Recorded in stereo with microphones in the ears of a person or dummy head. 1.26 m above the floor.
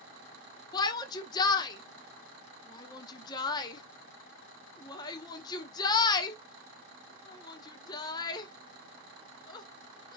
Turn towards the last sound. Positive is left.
turn(degrees=20)  # may be behind; listen again after turning